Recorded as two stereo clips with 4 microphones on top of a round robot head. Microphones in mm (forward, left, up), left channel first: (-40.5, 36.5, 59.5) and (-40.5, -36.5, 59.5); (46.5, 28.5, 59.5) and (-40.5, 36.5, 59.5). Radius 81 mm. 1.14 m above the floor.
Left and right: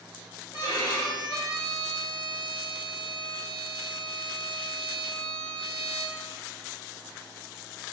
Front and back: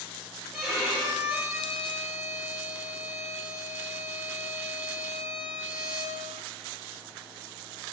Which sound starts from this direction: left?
A violin, at 0.5 s.